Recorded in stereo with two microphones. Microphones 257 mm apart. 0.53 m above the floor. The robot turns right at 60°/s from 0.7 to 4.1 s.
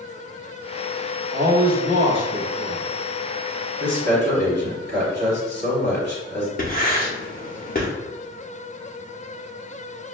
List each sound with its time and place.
1.3 s a man speaking: 85° right, 1.0 m; by 2.9 s 10° left, 1.0 m
3.8 s a man speaking: 45° right (ahead or behind), 1.6 m; by 6.5 s 40° right (ahead or behind), 1.6 m
6.6 s writing: 35° left (ahead or behind), 0.7 m